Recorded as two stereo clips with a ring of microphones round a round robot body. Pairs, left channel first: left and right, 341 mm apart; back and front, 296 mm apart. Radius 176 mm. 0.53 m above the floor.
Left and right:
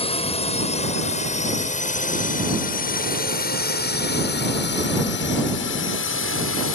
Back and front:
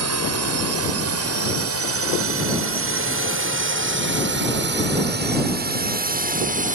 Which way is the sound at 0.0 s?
20° left.